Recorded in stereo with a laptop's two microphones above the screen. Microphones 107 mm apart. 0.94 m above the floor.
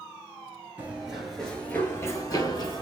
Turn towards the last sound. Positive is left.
turn(degrees=45)  # may be behind; listen again after turning